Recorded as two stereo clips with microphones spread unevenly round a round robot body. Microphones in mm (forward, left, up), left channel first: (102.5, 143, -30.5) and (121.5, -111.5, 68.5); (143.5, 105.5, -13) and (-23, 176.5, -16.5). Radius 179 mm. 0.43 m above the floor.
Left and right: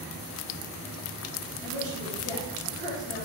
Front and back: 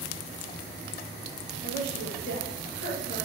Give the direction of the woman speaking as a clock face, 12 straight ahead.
6 o'clock.